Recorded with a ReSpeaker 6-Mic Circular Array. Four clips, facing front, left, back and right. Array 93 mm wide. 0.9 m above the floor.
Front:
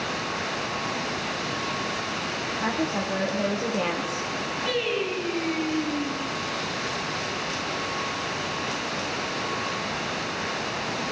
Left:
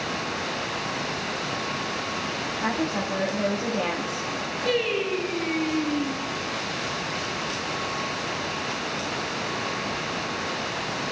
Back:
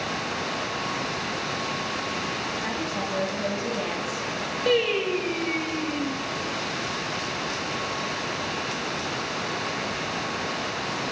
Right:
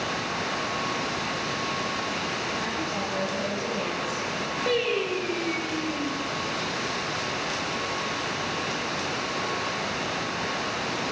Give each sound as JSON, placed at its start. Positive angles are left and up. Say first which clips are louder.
{"t": 2.6, "sound": "a woman speaking", "louder": "left 3 dB, front 3 dB", "azimuth_deg": 30, "distance_m": 1.7}
{"t": 4.7, "sound": "singing", "louder": "left 1 dB, back 5 dB", "azimuth_deg": -165, "distance_m": 2.5}